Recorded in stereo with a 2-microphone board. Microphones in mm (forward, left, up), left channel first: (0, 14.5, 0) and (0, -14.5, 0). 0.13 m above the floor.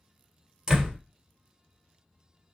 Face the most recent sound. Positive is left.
turn(degrees=-20)  # may be behind; listen again after turning